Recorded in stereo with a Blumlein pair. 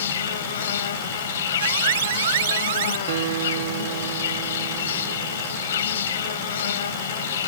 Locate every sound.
0.0 s an insect: 60° left
1.6 s an alarm: 55° right
3.1 s a guitar: 55° right